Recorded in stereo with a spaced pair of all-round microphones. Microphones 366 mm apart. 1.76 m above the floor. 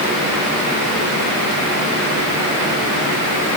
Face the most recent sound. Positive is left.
No sound to turn to.